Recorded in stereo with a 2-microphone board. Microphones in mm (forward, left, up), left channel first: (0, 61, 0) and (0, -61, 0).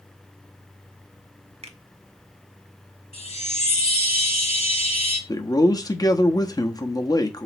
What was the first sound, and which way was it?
A finger snap, 60° right (ahead or behind).